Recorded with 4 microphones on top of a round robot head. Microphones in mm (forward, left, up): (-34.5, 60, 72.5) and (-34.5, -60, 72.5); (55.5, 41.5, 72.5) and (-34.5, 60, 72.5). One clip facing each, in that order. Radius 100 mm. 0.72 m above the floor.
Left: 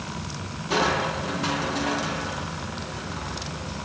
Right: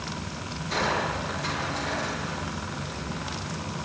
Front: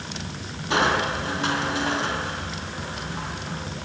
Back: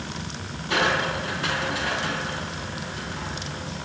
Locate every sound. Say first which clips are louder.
0.7 s crushing: left 4 dB, front 2 dB; 50° left, 5 m